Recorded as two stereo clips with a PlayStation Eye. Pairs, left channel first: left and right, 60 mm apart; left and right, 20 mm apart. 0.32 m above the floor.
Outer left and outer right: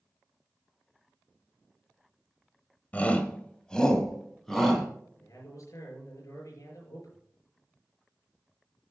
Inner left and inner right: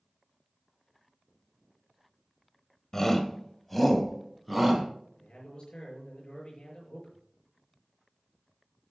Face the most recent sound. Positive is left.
turn(degrees=60)  # may be behind; listen again after turning